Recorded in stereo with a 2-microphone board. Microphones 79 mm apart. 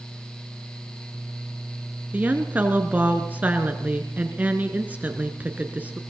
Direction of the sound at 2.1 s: 20° right (ahead or behind).